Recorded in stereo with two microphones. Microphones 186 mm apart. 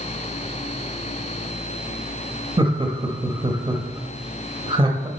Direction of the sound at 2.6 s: 25° right (ahead or behind).